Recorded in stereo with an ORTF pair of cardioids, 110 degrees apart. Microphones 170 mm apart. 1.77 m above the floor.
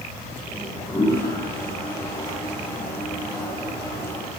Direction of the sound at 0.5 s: 15° left.